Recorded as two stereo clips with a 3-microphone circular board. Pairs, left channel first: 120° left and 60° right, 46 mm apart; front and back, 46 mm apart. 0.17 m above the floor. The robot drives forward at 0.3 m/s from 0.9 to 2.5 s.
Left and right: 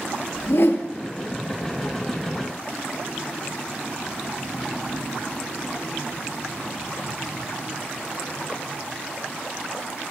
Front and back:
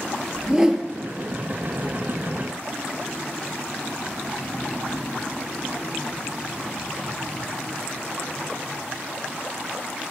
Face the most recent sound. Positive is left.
turn(degrees=125)